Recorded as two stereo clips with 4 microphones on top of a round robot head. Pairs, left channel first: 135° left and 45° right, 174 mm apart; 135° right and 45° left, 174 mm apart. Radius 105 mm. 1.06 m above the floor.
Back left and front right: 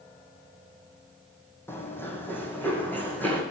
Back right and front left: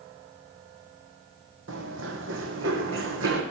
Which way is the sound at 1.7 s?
60° left.